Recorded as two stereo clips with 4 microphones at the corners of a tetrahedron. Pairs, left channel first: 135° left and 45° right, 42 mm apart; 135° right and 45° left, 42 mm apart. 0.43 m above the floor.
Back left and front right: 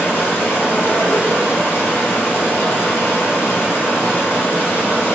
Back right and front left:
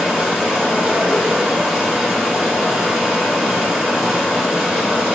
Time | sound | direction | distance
0.0 | running water | 125° left | 1.7 m